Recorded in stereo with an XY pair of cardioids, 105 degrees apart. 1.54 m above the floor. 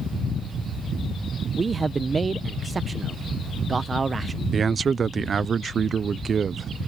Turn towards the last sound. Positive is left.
turn(degrees=-40)